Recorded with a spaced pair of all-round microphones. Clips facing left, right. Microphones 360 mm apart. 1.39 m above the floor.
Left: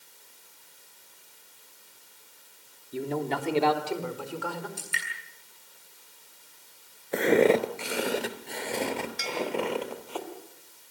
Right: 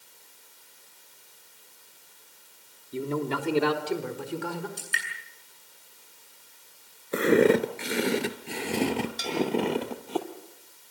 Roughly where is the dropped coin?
I don't hear a dropped coin.